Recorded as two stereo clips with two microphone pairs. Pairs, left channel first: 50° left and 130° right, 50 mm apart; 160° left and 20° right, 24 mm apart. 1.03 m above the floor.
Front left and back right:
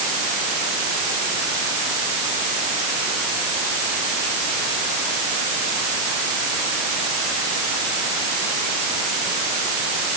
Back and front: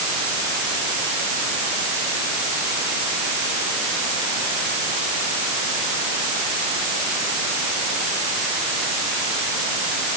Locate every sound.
Only background noise.